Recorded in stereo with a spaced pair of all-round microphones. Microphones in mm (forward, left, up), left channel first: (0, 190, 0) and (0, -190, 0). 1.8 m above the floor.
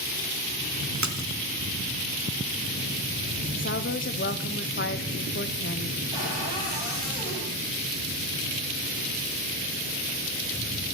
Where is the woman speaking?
30° left (ahead or behind), 1.0 m.